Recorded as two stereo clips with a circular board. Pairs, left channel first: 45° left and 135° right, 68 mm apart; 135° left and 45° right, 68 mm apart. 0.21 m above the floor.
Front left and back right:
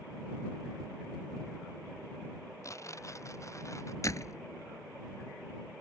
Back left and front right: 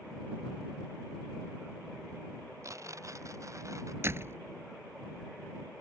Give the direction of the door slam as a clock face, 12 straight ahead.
12 o'clock.